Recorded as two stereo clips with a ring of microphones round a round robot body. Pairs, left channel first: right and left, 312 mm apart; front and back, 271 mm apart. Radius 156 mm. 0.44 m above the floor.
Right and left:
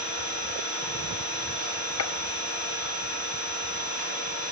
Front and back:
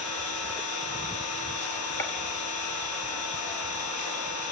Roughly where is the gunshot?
Right.